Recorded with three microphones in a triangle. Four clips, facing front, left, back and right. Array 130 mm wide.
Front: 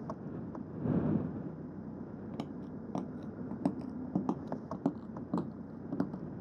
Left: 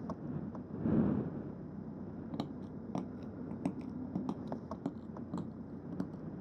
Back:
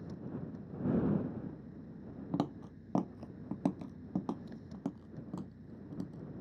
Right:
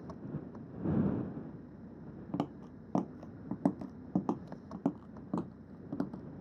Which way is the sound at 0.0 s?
30° left.